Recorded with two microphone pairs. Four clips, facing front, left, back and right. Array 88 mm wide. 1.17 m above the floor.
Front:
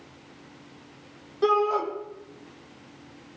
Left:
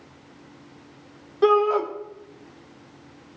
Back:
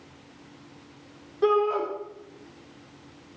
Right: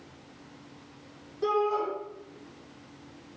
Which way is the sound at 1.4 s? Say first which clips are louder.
Left 8 dB, even; 90° left.